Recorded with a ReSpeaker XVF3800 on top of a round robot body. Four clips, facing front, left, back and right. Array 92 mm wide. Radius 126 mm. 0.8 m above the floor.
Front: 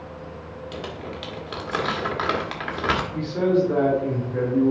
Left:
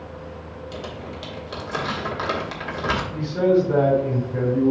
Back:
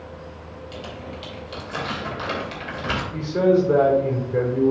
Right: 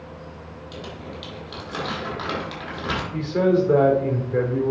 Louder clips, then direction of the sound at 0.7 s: Left 2 dB, front 2 dB; 15° left.